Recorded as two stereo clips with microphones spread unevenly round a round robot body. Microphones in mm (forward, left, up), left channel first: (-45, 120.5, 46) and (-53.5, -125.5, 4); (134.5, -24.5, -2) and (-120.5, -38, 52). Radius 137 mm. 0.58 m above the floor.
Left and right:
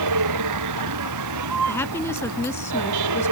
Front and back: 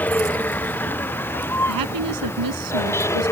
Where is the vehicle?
80° right; by 3.3 s 75° right.